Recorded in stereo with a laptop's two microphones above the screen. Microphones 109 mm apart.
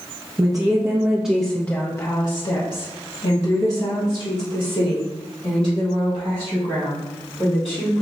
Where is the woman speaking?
40° right (ahead or behind), 0.9 m; by 8.0 s 80° left, 3.5 m.